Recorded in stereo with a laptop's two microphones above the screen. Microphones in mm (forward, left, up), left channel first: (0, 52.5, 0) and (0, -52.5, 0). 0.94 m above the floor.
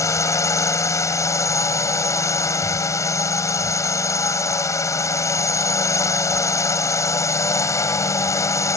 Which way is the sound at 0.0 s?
25° left (ahead or behind).